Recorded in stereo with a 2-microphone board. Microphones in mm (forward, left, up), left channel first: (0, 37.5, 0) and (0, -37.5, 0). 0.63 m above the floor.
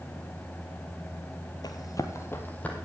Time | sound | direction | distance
1.6 | running footsteps | 60° left (ahead or behind) | 1.1 m